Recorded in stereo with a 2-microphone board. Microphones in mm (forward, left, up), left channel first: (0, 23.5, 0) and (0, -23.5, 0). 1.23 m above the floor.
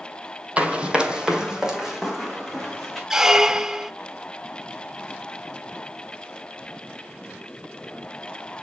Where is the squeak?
15° right (ahead or behind), 0.6 m.